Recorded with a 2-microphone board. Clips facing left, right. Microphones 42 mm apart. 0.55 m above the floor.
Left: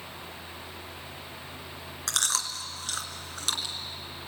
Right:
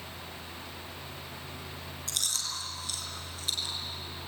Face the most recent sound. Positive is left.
turn(degrees=90)